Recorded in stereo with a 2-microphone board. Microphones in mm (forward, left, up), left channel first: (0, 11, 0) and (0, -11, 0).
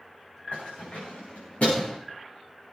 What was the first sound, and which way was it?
Keys jangling, 75° left (ahead or behind).